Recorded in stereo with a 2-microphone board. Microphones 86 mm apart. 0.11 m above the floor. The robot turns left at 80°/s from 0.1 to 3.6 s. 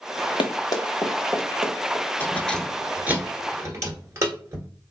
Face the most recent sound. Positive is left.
turn(degrees=-35)  # may be behind; listen again after turning